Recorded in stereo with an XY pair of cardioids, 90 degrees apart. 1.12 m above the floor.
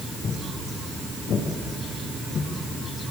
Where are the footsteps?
65° left, 6.5 m.